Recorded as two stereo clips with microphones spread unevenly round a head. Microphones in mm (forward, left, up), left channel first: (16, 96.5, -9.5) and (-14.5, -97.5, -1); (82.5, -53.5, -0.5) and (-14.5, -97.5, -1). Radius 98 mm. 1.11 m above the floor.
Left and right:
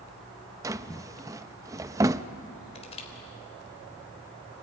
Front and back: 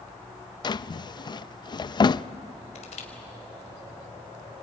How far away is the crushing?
About 3 m.